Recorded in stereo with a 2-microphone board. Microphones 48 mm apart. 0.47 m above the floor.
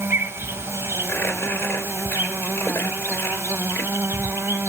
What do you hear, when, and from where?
0.0 s an insect: 70° right (ahead or behind), 0.7 m
1.1 s crumpling: 65° left (ahead or behind), 4 m